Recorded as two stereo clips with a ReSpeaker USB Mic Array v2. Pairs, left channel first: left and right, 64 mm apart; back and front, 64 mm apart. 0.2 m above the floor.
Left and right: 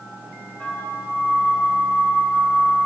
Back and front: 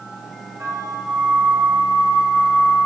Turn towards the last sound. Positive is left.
turn(degrees=25)